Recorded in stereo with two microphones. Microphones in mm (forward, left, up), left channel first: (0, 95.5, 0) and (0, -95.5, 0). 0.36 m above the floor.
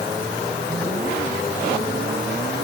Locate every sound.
Only background noise.